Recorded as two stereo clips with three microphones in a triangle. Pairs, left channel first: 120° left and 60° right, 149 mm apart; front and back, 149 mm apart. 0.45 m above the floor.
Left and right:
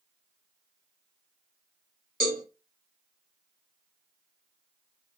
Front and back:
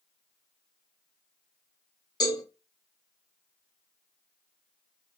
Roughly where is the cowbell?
Ahead right.